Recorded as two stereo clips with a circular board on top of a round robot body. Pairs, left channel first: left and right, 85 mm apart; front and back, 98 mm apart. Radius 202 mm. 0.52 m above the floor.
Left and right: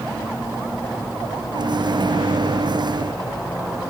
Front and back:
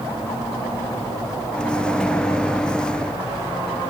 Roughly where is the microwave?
Right.